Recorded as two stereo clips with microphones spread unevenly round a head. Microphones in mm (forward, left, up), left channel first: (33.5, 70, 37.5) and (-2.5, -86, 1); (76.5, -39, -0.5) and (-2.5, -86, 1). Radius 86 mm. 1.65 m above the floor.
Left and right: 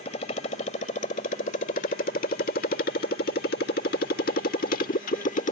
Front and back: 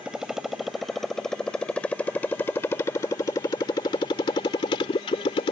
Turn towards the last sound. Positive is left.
turn(degrees=50)